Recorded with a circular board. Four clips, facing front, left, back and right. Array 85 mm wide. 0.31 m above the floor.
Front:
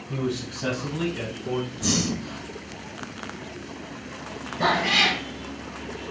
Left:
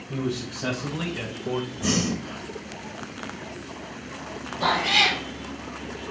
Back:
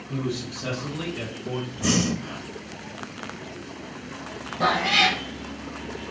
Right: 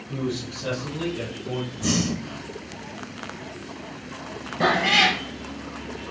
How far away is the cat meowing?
About 2.5 m.